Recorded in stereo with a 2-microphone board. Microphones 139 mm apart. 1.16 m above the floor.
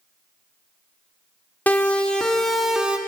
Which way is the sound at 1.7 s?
10° left (ahead or behind).